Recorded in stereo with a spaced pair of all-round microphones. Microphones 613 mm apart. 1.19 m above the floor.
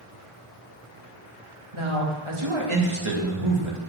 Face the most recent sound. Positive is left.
turn(degrees=-50)  # may be behind; listen again after turning